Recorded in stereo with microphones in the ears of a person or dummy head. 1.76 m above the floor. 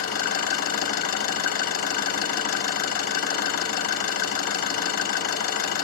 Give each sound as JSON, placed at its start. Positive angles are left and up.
{"t": 0.0, "sound": "an engine running", "side_deg": 55, "distance_m": 3.0}